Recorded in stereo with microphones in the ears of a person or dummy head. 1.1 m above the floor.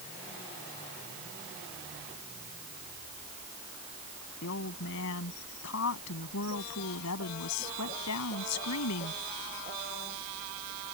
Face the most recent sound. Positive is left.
turn(degrees=85)